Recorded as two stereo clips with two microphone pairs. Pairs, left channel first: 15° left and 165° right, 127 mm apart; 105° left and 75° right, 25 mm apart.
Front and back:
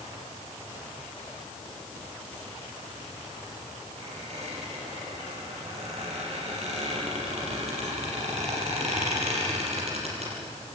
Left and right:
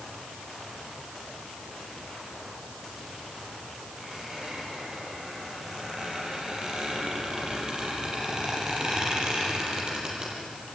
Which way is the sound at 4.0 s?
130° right.